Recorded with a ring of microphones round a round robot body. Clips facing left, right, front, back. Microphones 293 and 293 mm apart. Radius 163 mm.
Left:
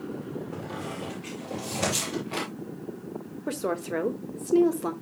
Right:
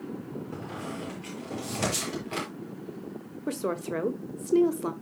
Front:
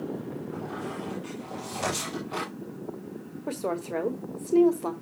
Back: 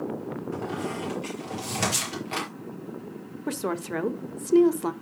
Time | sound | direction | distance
0.5 | a squeak | 160° right | 5.5 m
3.5 | a woman speaking | 170° right | 1.3 m